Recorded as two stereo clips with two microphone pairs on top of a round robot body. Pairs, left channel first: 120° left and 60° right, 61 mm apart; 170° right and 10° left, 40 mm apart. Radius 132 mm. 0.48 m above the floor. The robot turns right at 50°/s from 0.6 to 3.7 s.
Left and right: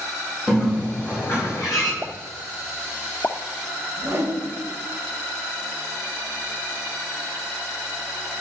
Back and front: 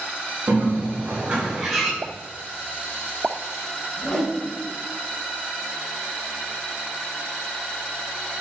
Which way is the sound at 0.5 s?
45° left.